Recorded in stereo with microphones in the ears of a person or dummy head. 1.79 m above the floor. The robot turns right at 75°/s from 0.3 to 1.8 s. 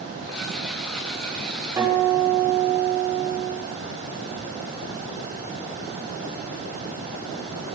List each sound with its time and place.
1.8 s a guitar: 10° right (ahead or behind), 6.5 m; by 3.5 s 15° right (ahead or behind), 6.5 m